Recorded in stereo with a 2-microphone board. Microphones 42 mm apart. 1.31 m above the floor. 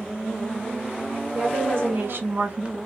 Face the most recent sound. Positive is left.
turn(degrees=-20)  # may be behind; listen again after turning